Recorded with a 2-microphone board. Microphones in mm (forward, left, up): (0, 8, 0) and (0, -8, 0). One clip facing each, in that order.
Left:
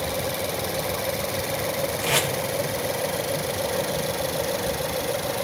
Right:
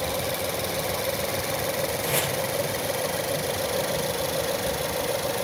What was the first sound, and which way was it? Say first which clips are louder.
Tape being pulled: left 6 dB; 55° left (ahead or behind).